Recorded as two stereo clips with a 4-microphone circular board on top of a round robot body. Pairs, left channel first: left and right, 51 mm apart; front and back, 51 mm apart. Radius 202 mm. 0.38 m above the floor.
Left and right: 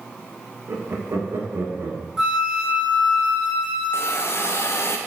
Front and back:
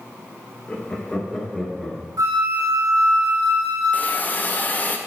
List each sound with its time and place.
0.7 s laughter: 65° right, 1.4 m; by 2.0 s 100° right, 1.6 m
2.2 s a flute: 170° right, 1.7 m
3.9 s a hiss: 60° left, 0.7 m